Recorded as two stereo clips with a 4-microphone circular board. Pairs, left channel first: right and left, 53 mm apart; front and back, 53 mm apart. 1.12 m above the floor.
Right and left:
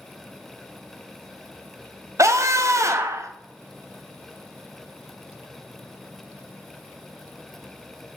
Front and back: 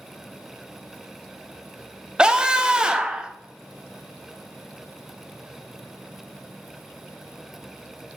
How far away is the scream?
About 0.7 m.